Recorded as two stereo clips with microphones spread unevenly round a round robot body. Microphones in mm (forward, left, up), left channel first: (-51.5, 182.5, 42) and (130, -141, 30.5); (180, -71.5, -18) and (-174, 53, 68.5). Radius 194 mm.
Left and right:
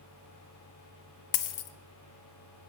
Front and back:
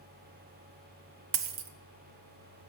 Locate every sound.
1.3 s a dropped coin: 120° left, 0.8 m